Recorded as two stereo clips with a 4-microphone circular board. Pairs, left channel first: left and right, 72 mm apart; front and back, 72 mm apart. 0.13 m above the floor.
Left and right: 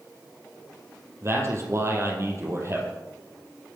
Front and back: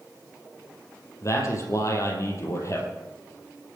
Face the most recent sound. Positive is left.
turn(degrees=-45)